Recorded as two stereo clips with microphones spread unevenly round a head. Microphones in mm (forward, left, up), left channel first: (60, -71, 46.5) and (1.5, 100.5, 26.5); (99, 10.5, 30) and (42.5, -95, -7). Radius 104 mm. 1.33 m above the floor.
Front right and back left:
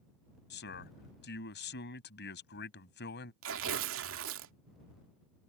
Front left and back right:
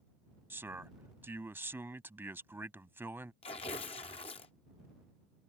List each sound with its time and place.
0.5 s a man speaking: 45° right
3.4 s tearing paper: 105° left